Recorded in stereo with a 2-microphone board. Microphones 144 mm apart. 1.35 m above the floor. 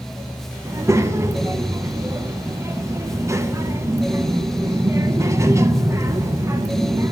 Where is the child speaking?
20° right (ahead or behind), 0.6 m.